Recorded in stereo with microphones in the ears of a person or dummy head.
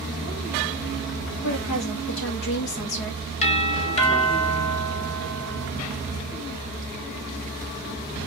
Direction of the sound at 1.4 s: 75° left (ahead or behind).